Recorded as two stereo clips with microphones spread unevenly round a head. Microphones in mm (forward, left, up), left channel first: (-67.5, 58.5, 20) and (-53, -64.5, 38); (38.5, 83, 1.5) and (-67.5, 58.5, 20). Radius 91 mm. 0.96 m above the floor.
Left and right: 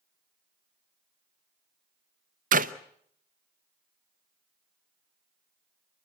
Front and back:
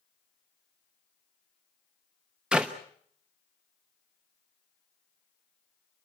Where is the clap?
80° right, 0.7 m.